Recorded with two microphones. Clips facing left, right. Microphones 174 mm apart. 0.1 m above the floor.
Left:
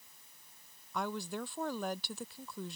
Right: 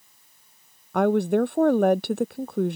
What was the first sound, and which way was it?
A woman speaking, 65° right (ahead or behind).